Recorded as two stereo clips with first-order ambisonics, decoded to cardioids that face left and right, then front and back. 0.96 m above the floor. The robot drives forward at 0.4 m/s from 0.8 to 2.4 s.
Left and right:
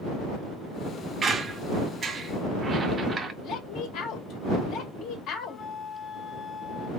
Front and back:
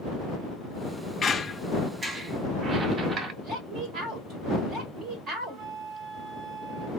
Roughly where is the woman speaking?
Behind left.